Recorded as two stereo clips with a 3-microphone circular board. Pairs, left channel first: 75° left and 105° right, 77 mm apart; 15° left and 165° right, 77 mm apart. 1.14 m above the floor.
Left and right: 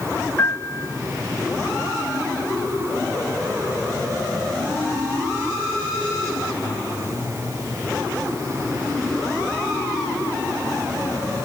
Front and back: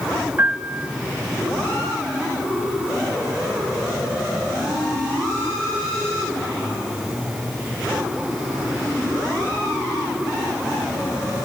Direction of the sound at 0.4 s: 135° left.